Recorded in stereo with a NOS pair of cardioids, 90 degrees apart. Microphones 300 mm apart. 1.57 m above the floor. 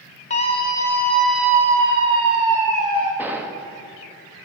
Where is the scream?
30° left, 1.0 m; by 3.1 s 65° right, 1.7 m.